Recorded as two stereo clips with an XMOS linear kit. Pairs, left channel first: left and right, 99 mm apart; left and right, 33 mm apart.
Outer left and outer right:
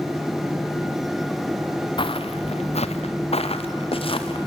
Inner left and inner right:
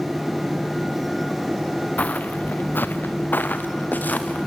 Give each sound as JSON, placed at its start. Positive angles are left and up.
{"t": 2.0, "sound": "footsteps", "side_deg": 50, "distance_m": 1.2}